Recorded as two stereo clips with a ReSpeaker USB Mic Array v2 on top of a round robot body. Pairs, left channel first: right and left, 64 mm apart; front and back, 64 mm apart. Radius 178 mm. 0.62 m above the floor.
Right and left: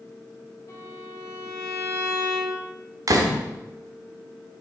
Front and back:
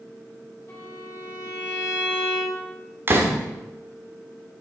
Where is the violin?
50° right, 3.5 m.